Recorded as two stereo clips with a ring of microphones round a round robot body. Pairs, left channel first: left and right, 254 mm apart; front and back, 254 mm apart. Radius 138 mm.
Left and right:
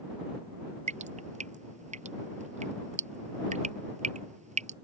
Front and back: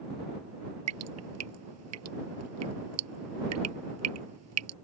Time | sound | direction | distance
0.9 | dripping | 155° right | ?